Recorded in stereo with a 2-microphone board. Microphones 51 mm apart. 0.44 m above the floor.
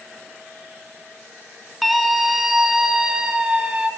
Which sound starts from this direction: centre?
A scream, at 1.8 s.